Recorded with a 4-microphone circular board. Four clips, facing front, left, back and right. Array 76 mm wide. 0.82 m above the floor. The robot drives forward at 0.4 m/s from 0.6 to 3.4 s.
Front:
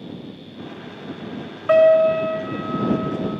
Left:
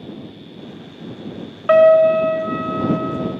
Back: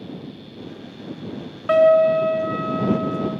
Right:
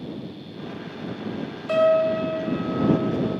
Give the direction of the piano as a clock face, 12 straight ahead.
9 o'clock.